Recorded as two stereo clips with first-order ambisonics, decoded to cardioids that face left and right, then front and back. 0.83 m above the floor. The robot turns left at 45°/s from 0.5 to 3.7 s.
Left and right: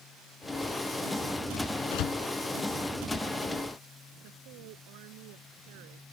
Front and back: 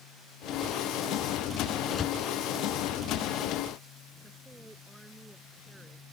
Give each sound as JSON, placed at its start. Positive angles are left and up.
{"t": 1.9, "sound": "a door slam", "azimuth_deg": 80}
{"t": 4.2, "sound": "a woman speaking", "azimuth_deg": -95}